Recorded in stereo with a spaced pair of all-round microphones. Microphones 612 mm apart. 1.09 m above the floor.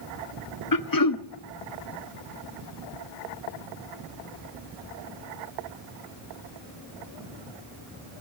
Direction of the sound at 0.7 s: 35° left (ahead or behind).